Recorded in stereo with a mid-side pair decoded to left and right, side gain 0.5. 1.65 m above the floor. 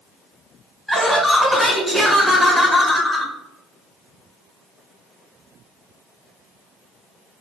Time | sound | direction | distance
0.9 | laughter | 5° left | 1.7 m